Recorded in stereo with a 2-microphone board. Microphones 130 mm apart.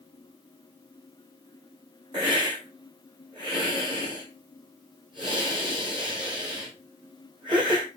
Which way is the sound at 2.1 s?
35° right (ahead or behind).